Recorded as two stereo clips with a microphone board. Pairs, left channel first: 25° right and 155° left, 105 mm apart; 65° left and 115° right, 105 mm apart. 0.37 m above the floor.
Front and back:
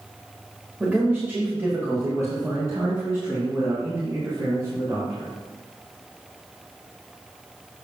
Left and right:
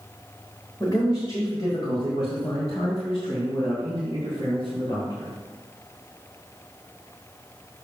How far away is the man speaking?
About 1.4 m.